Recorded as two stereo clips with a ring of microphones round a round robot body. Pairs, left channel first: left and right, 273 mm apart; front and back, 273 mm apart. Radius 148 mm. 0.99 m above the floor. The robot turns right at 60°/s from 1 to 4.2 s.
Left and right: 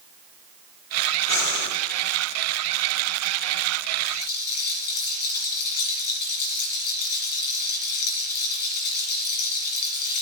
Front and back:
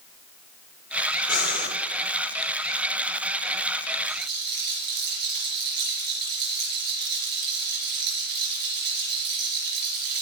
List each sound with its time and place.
1.3 s breathing: 50° left, 1.6 m; by 1.7 s 75° left, 1.6 m
4.0 s a rattle: 110° left, 4 m; by 10.2 s 120° left, 4 m